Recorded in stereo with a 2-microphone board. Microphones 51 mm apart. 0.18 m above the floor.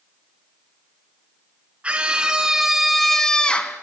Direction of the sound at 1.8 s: 25° right (ahead or behind).